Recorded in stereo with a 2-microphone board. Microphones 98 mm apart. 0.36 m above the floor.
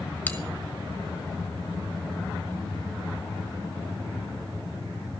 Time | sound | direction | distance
0.3 | a bell | 20° left (ahead or behind) | 1.9 m